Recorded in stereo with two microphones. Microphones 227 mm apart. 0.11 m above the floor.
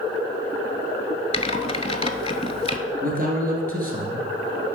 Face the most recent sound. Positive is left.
turn(degrees=-40)  # may be behind; listen again after turning